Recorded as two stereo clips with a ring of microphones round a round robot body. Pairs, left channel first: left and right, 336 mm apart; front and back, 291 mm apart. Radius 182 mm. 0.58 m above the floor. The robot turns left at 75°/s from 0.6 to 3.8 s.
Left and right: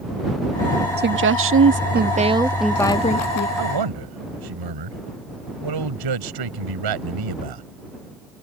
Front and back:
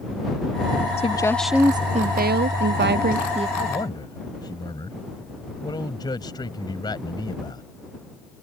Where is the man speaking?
60° right; by 7.6 s 80° right.